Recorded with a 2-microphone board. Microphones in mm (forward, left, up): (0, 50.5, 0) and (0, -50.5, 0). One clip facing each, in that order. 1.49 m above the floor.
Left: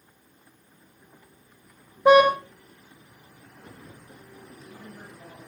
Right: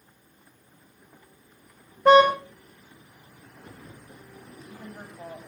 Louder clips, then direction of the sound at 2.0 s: Even; 10° left (ahead or behind).